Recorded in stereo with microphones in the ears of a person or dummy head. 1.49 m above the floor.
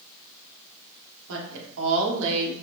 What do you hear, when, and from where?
1.3 s a woman speaking: 75° right (ahead or behind), 1.0 m